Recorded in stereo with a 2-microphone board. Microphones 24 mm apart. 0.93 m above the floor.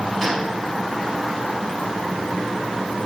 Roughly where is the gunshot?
Centre.